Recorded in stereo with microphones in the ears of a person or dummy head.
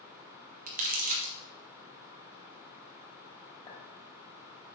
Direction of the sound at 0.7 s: 40° right (ahead or behind).